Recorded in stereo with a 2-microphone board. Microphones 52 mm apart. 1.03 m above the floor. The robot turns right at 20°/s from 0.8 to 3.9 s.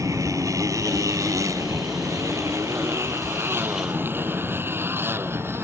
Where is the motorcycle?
85° right; by 5.7 s 45° right (ahead or behind).